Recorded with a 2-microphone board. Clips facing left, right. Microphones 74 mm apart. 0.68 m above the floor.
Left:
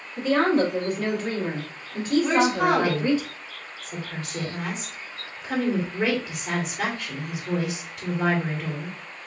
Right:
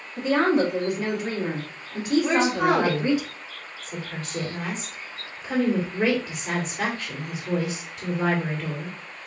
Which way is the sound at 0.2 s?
15° right (ahead or behind).